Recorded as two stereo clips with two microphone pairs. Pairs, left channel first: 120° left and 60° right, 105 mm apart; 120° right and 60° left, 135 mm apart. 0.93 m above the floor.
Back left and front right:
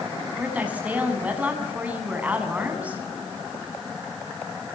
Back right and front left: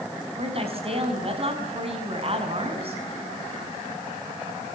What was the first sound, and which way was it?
A woman speaking, 20° left.